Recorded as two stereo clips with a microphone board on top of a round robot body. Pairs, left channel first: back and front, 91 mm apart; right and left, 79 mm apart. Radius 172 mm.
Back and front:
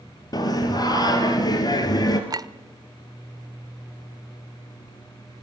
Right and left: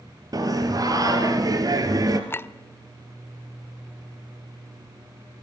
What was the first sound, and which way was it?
Singing, 135° left.